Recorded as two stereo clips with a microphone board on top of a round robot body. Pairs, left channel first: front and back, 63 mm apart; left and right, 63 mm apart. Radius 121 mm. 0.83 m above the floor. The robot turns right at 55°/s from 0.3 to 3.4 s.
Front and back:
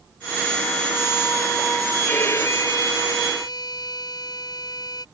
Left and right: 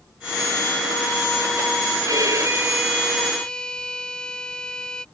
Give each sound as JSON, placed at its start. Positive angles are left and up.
{"t": 2.0, "sound": "a violin", "azimuth_deg": -65}